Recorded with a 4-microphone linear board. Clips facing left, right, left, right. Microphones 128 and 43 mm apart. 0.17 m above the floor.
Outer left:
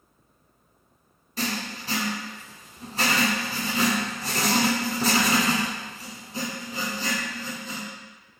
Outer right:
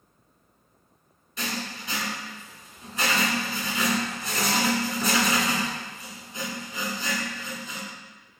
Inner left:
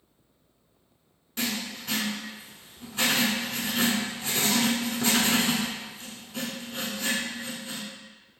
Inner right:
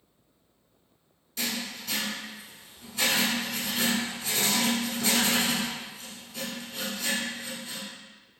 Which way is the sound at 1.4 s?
35° left (ahead or behind).